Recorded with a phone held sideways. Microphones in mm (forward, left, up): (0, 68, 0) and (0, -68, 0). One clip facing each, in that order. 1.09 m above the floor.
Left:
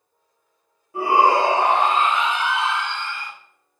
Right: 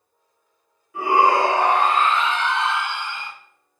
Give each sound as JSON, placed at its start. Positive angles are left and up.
{"t": 0.9, "sound": "a shout", "side_deg": 30, "distance_m": 1.4}